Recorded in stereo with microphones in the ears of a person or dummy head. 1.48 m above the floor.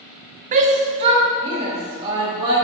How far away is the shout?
About 0.6 m.